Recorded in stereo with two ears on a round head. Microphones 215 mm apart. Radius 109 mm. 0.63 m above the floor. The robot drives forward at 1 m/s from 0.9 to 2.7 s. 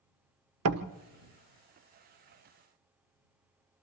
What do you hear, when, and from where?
0.7 s a door slam: 65° right (ahead or behind), 1.2 m